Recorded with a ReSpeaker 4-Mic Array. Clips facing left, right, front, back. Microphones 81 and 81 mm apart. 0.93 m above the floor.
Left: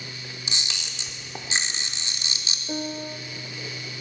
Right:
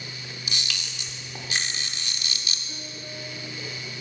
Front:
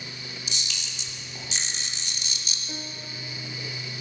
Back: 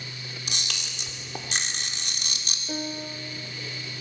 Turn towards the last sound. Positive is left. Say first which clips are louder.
# left 9 dB, back 9 dB
turn(degrees=115)